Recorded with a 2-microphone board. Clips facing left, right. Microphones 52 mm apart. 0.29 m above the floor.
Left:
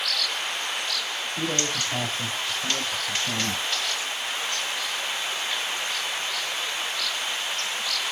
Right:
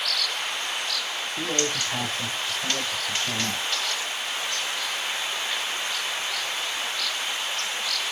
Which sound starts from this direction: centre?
A man speaking, at 1.4 s.